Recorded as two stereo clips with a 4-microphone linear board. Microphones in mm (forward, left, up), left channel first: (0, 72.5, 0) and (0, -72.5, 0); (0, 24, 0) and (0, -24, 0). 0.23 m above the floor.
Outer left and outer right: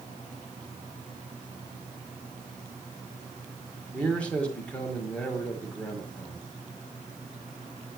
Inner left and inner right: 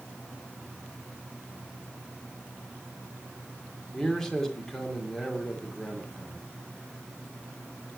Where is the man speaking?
10° left (ahead or behind), 1.7 m.